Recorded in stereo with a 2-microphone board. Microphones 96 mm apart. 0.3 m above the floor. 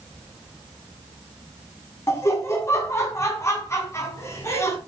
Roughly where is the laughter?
Left.